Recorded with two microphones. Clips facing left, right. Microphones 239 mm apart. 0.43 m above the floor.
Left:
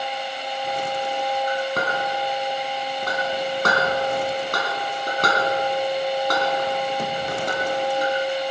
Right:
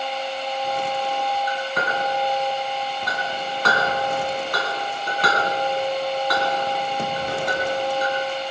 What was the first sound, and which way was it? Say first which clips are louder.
A clink: left 2 dB; 50° left (ahead or behind).